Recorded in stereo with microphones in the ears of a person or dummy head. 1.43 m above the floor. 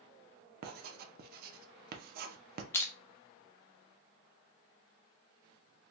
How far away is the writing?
About 0.6 m.